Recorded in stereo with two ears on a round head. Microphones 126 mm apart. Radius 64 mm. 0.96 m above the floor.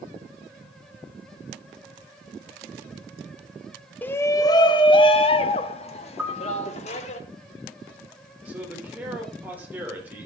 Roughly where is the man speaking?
Centre.